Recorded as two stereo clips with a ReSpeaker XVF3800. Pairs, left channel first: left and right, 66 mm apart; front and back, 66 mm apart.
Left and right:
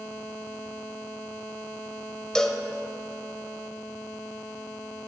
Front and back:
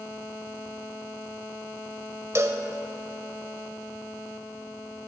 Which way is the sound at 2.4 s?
165° left.